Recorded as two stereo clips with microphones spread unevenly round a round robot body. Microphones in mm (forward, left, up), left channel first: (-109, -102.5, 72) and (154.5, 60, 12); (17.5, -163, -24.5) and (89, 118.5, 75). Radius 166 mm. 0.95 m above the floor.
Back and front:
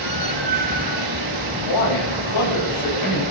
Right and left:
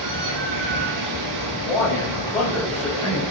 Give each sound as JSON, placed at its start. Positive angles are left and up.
{"t": 0.0, "sound": "running water", "azimuth_deg": 65, "distance_m": 4.0}
{"t": 1.6, "sound": "a man speaking", "azimuth_deg": 175, "distance_m": 6.0}